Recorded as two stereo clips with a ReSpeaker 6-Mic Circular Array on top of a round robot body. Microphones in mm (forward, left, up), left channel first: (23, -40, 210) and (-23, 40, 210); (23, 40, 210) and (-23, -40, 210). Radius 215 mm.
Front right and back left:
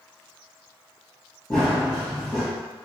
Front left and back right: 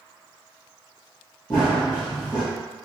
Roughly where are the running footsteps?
Ahead.